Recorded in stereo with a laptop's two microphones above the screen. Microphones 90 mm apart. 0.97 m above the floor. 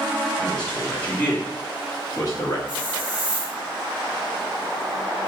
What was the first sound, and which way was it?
A man speaking, 5° left (ahead or behind).